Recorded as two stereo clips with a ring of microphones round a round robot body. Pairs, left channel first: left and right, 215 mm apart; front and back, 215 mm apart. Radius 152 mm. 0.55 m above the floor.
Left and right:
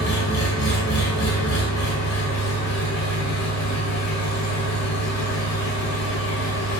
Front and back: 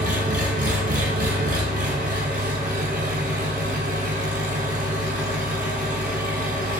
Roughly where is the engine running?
Behind left.